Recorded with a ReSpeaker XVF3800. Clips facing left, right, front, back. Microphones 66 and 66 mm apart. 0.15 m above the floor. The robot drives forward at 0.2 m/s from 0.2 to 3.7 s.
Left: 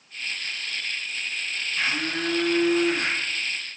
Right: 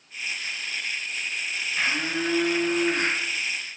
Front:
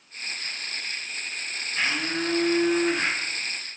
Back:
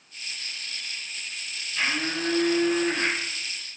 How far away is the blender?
About 1.2 m.